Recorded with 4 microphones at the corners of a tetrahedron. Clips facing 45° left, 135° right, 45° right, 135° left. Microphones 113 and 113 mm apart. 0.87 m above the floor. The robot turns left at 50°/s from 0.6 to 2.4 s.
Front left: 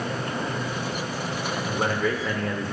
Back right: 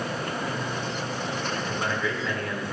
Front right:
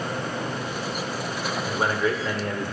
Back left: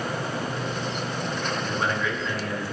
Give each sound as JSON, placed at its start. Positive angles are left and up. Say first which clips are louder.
{"t": 1.6, "sound": "a man speaking", "louder": "front left 6 dB, front right 5 dB", "azimuth_deg": 25, "distance_m": 1.1}